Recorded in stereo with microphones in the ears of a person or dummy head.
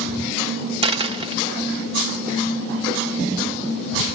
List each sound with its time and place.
0.8 s a dropped coin: 35° right (ahead or behind), 1.2 m